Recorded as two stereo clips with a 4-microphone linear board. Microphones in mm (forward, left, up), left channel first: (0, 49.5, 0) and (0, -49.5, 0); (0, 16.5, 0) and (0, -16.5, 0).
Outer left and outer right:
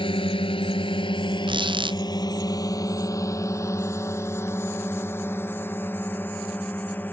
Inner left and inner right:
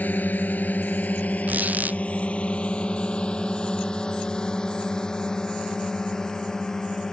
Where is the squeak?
55° right (ahead or behind).